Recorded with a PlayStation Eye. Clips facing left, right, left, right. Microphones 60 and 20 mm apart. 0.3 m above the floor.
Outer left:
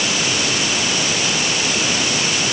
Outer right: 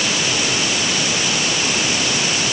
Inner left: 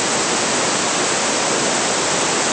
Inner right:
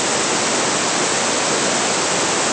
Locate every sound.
Only background noise.